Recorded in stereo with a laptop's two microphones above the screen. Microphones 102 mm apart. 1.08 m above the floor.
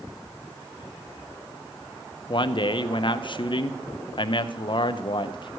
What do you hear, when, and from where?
2.3 s a man speaking: 50° left (ahead or behind), 0.5 m